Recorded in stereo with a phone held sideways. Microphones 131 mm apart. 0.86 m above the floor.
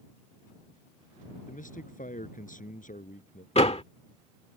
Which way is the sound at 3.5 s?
50° left (ahead or behind).